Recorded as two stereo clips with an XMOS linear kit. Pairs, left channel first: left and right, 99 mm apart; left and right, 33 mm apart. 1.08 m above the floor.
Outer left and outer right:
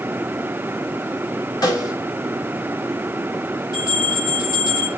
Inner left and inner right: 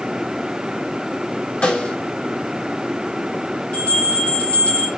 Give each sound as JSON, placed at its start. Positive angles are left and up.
{"t": 1.6, "sound": "a snare drum", "side_deg": 40, "distance_m": 3.0}
{"t": 3.7, "sound": "a bell", "side_deg": 45, "distance_m": 5.5}